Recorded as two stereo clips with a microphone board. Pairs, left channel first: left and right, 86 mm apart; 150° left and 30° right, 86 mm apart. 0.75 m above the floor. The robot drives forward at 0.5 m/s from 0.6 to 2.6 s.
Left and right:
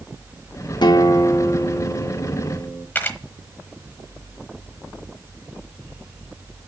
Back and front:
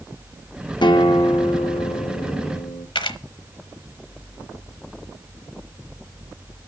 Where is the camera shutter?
155° left, 1.0 m.